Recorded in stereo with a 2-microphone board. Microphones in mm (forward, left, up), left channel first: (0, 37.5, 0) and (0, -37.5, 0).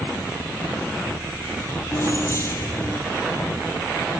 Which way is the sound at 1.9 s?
40° left (ahead or behind).